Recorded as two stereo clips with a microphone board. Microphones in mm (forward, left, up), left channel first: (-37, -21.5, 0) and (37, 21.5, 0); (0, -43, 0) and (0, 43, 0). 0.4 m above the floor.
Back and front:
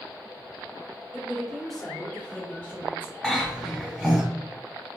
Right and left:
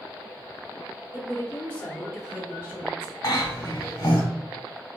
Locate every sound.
1.1 s a woman speaking: 55° right, 1.3 m; by 3.1 s 140° left, 1.7 m
3.2 s a cough: 50° right, 1.7 m